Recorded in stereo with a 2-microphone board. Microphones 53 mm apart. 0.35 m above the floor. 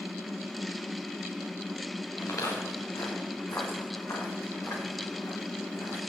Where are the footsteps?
75° left (ahead or behind), 4 m; by 6.0 s 55° left (ahead or behind), 5 m.